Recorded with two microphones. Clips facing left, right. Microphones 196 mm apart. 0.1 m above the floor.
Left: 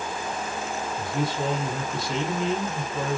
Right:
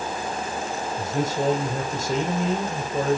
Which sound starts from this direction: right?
A man speaking, at 1.0 s.